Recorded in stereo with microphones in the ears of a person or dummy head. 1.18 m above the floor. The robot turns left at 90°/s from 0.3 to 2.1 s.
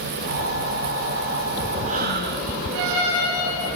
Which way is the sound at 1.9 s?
35° right (ahead or behind).